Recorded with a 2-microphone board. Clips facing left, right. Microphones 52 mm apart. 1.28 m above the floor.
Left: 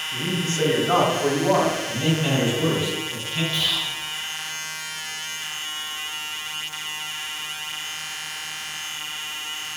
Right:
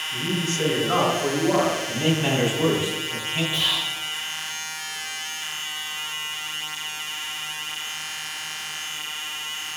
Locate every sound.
0.1 s a man speaking: 35° left (ahead or behind), 3.5 m
1.9 s a man speaking: 20° right (ahead or behind), 2.5 m
3.5 s whispering: 20° right (ahead or behind), 1.0 m